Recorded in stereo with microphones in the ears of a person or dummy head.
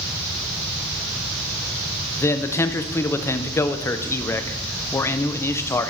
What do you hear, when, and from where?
2.2 s a man speaking: 15° left (ahead or behind), 0.5 m